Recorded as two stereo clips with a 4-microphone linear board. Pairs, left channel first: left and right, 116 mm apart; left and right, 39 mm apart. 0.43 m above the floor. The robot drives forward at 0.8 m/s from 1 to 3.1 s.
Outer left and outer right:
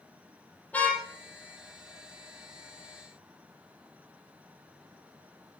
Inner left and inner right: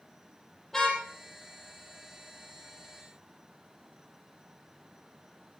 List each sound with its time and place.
0.7 s a car horn: 15° left (ahead or behind), 7 m